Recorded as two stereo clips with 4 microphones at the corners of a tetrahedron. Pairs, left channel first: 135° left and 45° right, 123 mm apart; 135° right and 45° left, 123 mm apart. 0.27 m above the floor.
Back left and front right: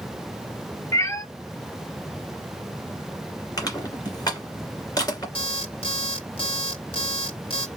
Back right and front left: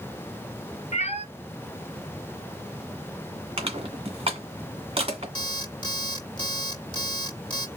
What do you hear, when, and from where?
0.9 s a cat meowing: 160° right, 1.0 m
3.6 s crushing: 80° left, 2.0 m
5.3 s an alarm clock: 175° left, 1.2 m